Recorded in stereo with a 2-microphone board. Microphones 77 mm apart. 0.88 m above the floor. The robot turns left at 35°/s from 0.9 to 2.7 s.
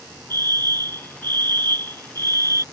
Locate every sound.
0.3 s a fire alarm: 70° right; by 2.6 s 130° right